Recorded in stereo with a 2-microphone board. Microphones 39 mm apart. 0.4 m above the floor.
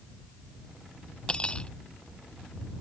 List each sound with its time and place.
1.3 s cutlery clinking: 25° left (ahead or behind)